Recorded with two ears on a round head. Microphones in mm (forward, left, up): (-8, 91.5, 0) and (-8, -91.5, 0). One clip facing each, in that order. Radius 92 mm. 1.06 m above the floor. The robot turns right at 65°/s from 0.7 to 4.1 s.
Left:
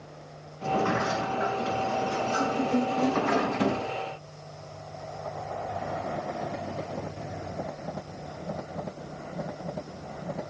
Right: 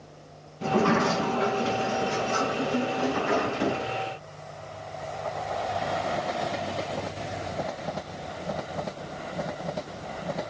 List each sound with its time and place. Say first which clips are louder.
0.6 s a sliding door: right 4 dB; 95° right, 5 m; by 3.9 s 110° left, 5 m